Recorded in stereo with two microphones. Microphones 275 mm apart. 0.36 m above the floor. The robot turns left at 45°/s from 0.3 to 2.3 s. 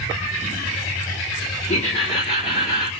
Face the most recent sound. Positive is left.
turn(degrees=20)  # may be behind; listen again after turning